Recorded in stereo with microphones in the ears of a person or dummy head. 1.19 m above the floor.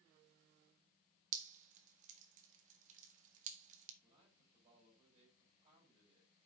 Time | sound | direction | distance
1.3 | dripping | 50° right (ahead or behind) | 1.6 m
4.0 | a man speaking | 35° right (ahead or behind) | 5.5 m